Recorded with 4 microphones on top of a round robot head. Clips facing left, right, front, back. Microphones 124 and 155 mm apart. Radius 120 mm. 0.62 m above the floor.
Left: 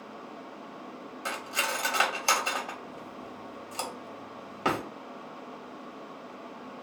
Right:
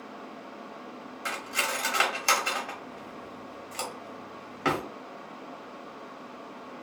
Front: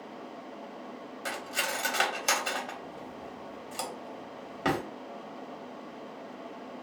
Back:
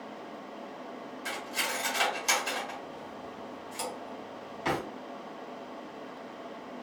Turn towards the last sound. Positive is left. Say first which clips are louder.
# even, front 2 dB
turn(degrees=25)